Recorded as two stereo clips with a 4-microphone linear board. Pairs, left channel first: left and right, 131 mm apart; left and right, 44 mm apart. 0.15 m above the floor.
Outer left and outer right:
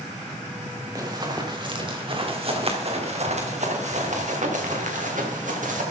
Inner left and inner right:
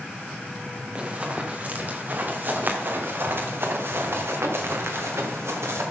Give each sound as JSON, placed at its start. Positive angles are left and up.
{"t": 0.9, "sound": "running footsteps", "side_deg": -30, "distance_m": 3.0}